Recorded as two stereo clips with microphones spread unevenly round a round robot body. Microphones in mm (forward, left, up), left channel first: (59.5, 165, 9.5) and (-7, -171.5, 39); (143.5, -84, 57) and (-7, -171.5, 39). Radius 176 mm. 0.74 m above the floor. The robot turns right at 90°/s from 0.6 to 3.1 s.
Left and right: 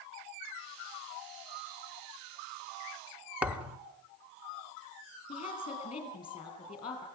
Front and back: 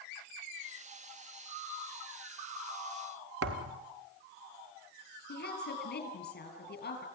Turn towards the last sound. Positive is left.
turn(degrees=5)